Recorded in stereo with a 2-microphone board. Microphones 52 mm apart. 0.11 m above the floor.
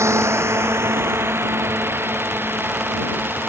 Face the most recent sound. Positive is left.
turn(degrees=-40)  # may be behind; listen again after turning